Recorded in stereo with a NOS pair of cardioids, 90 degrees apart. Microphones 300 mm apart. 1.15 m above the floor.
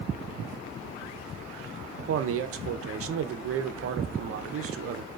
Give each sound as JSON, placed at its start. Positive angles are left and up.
{"t": 2.0, "sound": "a man speaking", "azimuth_deg": -50, "distance_m": 0.6}